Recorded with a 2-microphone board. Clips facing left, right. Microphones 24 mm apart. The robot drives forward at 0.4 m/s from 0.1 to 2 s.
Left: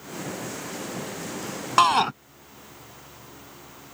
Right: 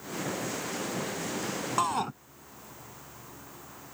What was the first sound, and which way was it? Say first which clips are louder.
A shout: left 11 dB; 60° left (ahead or behind).